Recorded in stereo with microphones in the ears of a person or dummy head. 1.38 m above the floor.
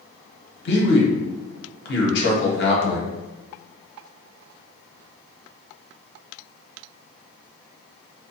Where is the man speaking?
70° left (ahead or behind), 0.9 m.